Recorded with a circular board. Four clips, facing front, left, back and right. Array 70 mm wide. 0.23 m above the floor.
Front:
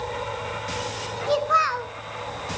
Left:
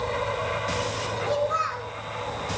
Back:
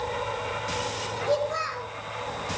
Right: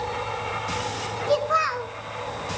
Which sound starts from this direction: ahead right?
A child speaking, at 1.3 s.